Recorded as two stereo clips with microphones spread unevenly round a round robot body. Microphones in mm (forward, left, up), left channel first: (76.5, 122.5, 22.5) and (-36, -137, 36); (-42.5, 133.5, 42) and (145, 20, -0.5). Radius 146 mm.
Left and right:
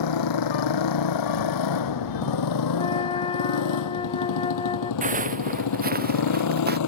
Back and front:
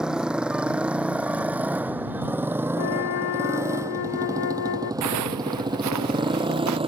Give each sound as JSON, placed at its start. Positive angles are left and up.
{"t": 0.0, "sound": "a motorcycle", "azimuth_deg": 55}
{"t": 2.8, "sound": "a flute", "azimuth_deg": 140}
{"t": 5.0, "sound": "footsteps", "azimuth_deg": -50}